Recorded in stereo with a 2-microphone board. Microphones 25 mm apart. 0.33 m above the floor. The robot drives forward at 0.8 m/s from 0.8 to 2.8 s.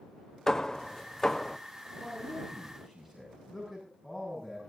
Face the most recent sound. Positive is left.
turn(degrees=-10)  # may be behind; listen again after turning